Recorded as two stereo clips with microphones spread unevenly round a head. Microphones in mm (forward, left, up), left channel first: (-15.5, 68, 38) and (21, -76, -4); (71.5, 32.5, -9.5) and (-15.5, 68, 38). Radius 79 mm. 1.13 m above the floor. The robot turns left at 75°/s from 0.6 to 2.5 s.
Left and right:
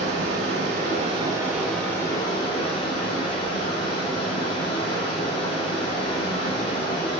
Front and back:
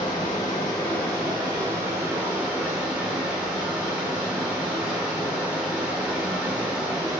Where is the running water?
100° right, 0.9 m; by 7.2 s 115° left, 0.9 m.